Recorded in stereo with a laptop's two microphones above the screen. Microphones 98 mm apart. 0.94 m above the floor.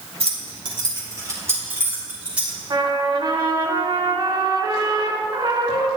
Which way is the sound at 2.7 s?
50° right (ahead or behind).